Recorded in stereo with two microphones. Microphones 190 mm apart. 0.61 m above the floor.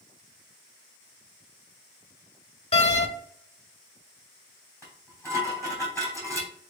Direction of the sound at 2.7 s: 35° left (ahead or behind).